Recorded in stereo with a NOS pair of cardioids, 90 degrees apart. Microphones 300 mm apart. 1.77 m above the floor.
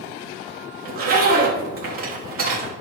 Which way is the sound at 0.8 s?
50° right.